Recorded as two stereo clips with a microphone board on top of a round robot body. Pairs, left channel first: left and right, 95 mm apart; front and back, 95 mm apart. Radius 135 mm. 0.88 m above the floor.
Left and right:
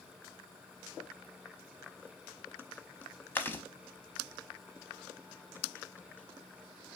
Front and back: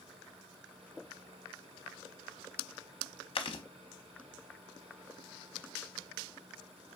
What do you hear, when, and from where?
3.4 s chewing: 25° left, 0.7 m